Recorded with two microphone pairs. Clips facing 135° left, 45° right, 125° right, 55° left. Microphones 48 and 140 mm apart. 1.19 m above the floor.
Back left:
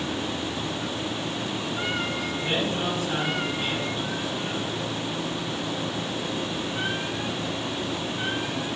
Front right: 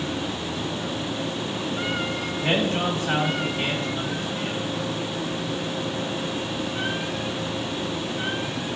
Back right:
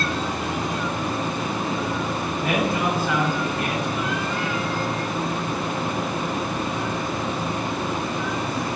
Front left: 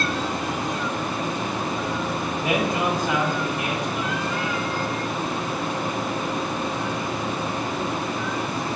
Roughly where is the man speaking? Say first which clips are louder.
Front right 5 dB, even; ahead.